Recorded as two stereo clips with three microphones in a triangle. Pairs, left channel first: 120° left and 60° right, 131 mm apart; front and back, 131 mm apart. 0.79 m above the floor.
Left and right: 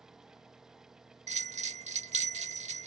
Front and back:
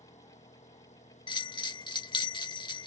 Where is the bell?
50° right.